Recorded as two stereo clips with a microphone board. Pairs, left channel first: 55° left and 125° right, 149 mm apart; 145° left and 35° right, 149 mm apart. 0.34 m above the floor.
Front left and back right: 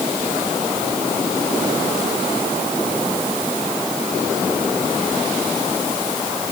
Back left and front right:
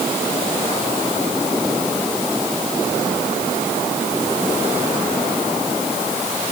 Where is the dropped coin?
I don't hear a dropped coin.